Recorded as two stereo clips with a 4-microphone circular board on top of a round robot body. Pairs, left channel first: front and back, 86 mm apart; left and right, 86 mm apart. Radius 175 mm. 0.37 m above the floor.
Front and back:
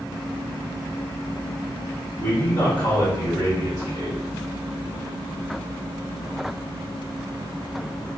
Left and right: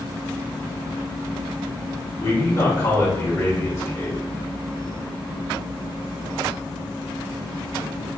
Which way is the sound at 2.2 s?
50° left.